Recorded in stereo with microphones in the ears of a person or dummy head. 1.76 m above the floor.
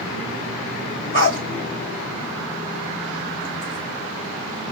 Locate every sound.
1.1 s a dog barking: 55° left (ahead or behind), 3 m